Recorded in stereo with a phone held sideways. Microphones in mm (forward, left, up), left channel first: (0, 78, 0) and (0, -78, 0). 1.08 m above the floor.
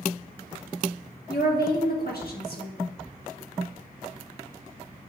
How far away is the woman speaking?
About 1.5 m.